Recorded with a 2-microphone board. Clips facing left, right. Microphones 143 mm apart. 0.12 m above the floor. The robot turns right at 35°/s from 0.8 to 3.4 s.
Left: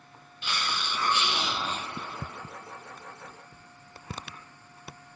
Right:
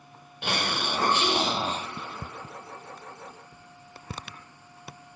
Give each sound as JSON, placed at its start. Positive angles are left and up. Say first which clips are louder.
{"t": 0.4, "sound": "a hiss", "louder": "right 4 dB", "azimuth_deg": -70, "distance_m": 0.9}